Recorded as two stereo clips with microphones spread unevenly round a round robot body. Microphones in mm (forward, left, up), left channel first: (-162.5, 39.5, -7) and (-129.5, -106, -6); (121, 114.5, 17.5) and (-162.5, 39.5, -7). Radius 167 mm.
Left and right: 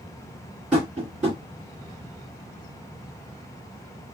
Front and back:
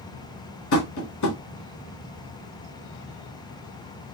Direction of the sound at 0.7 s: 5° left.